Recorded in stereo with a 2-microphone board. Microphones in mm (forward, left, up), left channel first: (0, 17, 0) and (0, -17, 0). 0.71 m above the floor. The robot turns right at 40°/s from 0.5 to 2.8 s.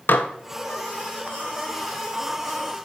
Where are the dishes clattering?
80° left, 0.5 m.